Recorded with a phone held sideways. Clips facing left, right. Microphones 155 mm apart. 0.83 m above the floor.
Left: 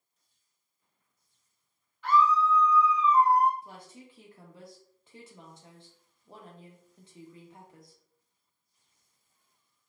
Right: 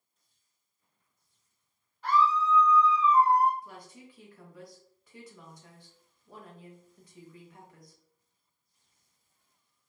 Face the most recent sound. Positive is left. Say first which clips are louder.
# even
turn(degrees=25)  # may be behind; listen again after turning